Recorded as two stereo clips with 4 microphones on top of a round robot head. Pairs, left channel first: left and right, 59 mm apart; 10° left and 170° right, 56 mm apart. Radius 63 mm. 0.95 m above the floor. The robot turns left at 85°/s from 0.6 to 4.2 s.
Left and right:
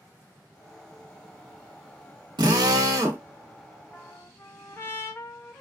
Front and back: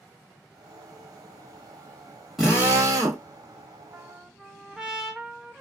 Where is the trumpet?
135° left, 0.8 m; by 5.6 s 115° left, 0.8 m.